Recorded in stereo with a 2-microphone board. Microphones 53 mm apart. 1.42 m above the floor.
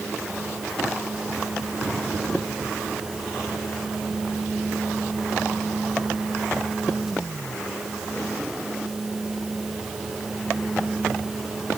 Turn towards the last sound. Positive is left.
No sound to turn to.